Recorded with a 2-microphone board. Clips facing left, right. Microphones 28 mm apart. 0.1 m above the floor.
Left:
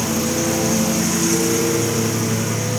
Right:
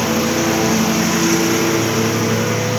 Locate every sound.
0.0 s a lawn mower: 30° right (ahead or behind)